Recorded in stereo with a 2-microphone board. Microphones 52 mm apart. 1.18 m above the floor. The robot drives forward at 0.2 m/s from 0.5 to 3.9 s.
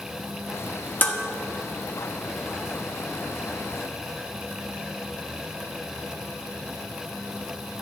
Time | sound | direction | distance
1.0 | dishes clattering | 35° left (ahead or behind) | 1.4 m